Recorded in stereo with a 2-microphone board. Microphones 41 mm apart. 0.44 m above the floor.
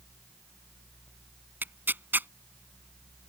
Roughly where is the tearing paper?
Right.